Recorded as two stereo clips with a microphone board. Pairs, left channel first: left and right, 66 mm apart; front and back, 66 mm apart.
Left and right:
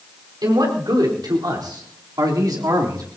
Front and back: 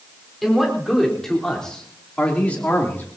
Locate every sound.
0.4 s a man speaking: 95° right, 4.5 m; by 3.1 s 65° right, 3.5 m